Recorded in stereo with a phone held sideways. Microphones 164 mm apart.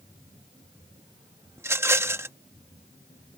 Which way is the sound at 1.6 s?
15° right (ahead or behind).